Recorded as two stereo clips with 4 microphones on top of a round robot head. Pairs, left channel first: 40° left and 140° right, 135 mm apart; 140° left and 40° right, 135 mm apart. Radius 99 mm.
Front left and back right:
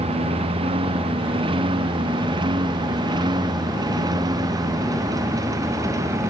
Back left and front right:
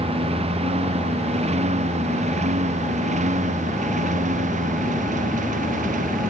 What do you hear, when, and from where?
0.0 s a lawn mower: 90° right; by 6.3 s 70° right